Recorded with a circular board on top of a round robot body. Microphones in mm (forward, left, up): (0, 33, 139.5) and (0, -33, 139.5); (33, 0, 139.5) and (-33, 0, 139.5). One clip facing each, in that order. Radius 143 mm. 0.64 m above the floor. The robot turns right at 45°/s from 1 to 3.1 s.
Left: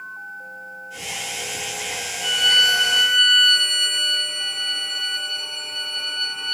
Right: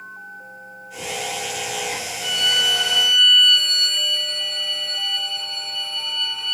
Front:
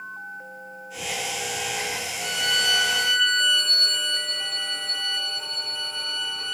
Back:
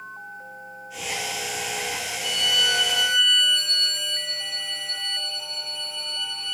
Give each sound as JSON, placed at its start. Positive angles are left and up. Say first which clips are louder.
{"t": 2.2, "sound": "a violin", "louder": "left 3 dB, even", "azimuth_deg": -15, "distance_m": 2.5}